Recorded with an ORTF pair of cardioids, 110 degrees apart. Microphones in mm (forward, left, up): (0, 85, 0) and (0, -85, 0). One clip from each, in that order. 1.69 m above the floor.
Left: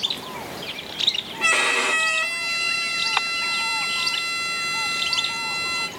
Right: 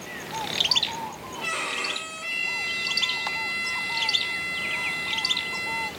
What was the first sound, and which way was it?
A violin, 60° left.